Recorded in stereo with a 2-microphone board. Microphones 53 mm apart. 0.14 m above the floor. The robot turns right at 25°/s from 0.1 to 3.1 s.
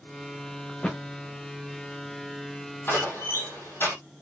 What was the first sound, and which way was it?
A thud, 15° left (ahead or behind).